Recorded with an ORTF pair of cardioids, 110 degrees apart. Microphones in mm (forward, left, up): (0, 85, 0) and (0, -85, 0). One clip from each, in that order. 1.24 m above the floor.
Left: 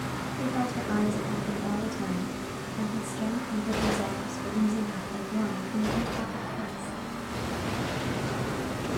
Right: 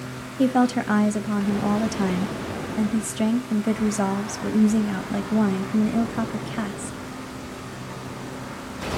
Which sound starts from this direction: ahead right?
A woman speaking, at 0.4 s.